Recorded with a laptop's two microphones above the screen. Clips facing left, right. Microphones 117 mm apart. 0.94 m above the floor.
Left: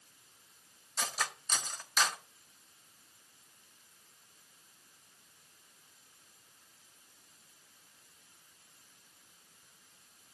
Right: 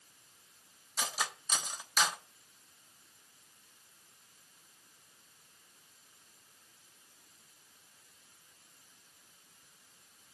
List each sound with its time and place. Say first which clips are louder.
1.0 s cutlery clinking: even; 10° right (ahead or behind), 1.1 m